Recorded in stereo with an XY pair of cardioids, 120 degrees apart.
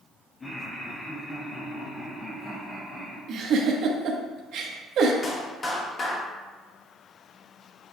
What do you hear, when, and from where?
0.4 s laughter: 30° left, 2 m
3.3 s a giggle: 65° right, 1.3 m
5.2 s a clap: 30° left, 1.8 m